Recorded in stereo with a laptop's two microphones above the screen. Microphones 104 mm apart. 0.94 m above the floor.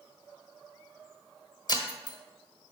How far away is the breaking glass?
About 1.7 m.